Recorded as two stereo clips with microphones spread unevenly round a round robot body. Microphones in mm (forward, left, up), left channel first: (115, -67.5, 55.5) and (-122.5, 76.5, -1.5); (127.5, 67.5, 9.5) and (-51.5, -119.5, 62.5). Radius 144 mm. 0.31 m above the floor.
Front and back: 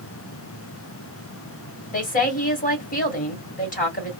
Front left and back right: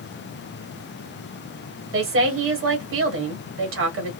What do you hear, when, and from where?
1.9 s a woman speaking: 95° right, 1.8 m